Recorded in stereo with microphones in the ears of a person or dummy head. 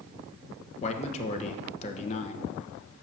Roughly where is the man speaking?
Left.